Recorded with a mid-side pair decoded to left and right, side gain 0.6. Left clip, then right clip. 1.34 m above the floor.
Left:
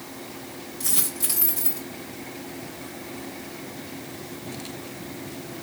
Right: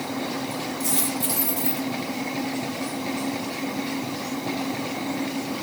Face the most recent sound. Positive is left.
turn(degrees=20)